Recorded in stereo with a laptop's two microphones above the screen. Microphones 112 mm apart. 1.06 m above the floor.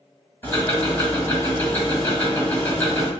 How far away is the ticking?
About 1.9 m.